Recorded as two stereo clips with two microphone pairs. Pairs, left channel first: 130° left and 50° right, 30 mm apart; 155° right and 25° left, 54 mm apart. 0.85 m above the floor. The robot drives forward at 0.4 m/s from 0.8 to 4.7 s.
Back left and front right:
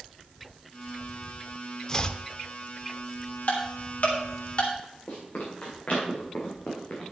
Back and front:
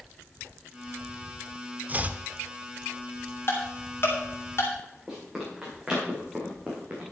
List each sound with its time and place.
1.9 s chopping: 65° left, 0.6 m; by 2.2 s 80° left, 0.6 m
3.5 s ticking: 160° left, 3 m; by 4.7 s 165° left, 3.5 m
5.1 s running footsteps: 95° left, 5.5 m; by 7.1 s 90° left, 4 m